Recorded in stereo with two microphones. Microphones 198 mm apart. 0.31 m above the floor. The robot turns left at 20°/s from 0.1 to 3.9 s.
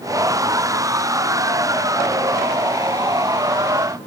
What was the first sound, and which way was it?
Only background noise.